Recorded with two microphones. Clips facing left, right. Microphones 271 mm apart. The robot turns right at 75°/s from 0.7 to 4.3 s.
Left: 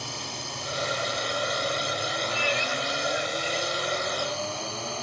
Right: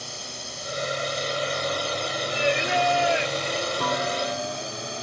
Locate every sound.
0.0 s a drone: 75° left; by 5.0 s 15° right
2.3 s singing: 140° right; by 3.6 s 40° right
3.8 s a clunk: 115° right; by 4.7 s 80° right